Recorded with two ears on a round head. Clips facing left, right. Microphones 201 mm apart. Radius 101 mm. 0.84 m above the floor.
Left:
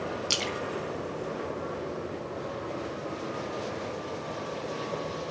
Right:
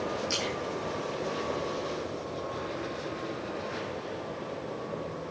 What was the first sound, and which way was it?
A splash, 45° left (ahead or behind).